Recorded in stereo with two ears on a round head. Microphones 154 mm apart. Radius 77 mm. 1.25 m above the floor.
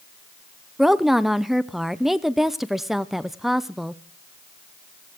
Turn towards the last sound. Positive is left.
turn(degrees=0)  # may be behind; listen again after turning